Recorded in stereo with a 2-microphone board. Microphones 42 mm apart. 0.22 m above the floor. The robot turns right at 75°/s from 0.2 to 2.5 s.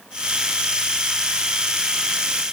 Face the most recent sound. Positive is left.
No sound to turn to.